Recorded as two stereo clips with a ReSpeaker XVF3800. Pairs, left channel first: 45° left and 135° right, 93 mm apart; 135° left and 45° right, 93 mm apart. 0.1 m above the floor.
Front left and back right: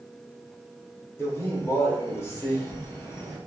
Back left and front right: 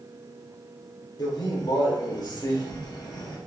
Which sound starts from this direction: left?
A man speaking, at 1.2 s.